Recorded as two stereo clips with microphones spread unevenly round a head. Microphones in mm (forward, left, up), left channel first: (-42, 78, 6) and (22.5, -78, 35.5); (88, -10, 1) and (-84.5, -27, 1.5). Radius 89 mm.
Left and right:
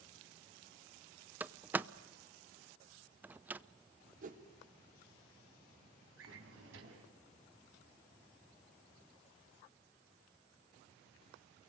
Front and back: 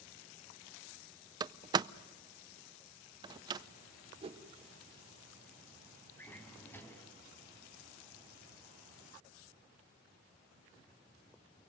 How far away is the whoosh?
About 1.3 m.